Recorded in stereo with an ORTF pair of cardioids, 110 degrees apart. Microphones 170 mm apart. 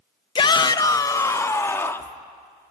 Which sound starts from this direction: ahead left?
A shout, at 0.3 s.